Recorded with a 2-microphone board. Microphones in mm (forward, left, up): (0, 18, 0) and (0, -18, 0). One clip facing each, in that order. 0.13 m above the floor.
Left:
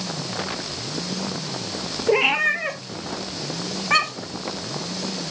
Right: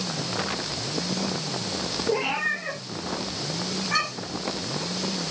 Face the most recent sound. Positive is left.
turn(degrees=60)  # may be behind; listen again after turning